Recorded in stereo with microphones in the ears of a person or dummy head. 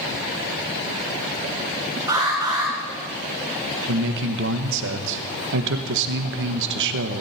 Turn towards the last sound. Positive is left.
turn(degrees=-70)  # may be behind; listen again after turning